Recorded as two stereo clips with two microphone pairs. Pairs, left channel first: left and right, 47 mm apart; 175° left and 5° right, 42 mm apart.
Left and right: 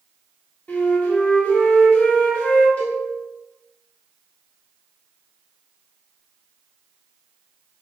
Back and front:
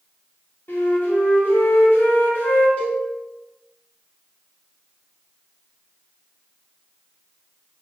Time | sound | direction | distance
0.7 | a flute | 145° left | 1.0 m
2.8 | a cowbell | 135° left | 1.7 m